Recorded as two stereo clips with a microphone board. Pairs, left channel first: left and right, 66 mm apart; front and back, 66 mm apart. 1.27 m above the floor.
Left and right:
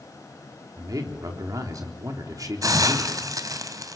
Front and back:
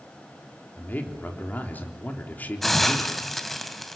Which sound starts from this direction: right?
A hiss, at 2.6 s.